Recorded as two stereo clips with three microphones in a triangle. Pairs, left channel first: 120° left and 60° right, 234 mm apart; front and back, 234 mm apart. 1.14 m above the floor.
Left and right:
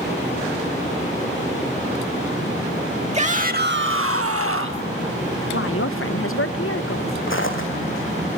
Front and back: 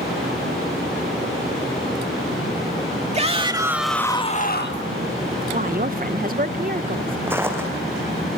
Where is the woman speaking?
130° left, 0.9 m.